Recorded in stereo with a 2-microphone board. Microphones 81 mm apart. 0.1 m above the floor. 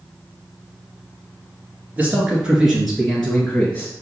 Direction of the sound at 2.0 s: 20° right (ahead or behind).